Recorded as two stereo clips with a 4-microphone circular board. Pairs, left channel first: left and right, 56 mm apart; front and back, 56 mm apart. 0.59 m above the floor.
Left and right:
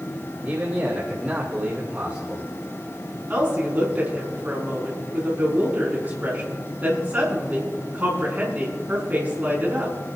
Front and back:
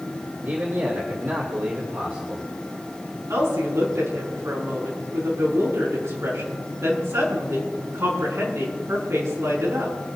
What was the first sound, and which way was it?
A man speaking, 145° right.